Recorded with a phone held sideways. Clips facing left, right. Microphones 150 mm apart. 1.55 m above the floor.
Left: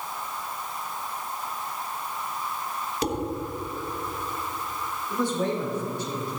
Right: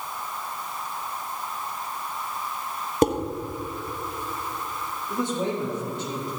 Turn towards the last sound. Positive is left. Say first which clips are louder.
# left 1 dB
turn(degrees=-20)  # may be behind; listen again after turning